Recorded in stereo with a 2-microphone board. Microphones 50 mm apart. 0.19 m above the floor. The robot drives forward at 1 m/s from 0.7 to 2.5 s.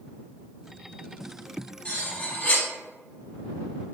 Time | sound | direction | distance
1.9 | cutlery clinking | 25° left (ahead or behind) | 0.9 m